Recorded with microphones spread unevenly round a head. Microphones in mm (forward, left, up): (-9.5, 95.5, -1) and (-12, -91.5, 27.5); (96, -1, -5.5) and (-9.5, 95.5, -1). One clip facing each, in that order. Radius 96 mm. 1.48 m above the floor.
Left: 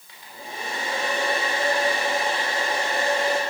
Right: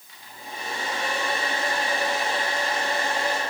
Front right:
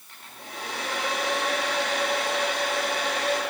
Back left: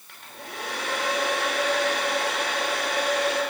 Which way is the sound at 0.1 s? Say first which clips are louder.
Left 2 dB, back left 2 dB; 115° left.